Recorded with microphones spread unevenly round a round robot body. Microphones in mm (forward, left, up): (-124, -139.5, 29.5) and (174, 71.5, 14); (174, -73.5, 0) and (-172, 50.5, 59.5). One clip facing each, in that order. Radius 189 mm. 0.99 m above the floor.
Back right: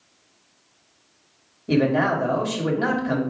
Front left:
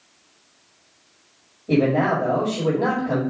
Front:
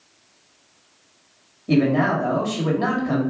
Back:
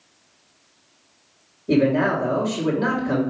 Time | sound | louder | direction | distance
1.7 | a man speaking | front left 1 dB, even | 95° right | 1.7 m